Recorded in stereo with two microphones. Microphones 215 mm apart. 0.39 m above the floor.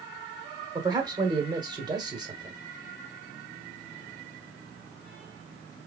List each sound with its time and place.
0.8 s a man speaking: 20° right (ahead or behind), 1.1 m